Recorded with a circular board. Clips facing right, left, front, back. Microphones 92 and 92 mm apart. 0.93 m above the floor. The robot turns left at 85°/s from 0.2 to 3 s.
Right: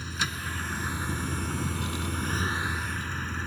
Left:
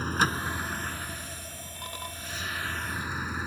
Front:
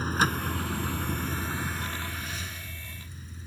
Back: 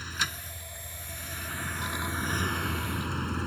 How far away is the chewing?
I don't hear chewing.